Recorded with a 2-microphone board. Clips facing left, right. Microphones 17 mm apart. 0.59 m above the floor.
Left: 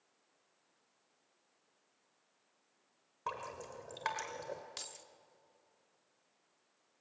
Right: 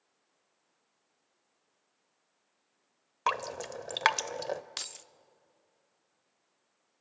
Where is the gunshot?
No gunshot in this recording.